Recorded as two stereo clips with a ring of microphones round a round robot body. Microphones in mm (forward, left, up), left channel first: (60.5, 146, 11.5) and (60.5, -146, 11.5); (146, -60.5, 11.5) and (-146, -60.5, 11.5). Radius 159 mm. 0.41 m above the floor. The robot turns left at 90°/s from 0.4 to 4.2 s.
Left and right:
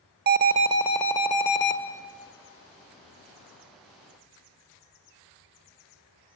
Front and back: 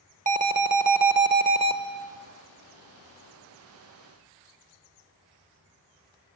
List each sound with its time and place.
0.3 s an alarm: 130° right, 1.5 m; by 1.8 s 110° left, 1.5 m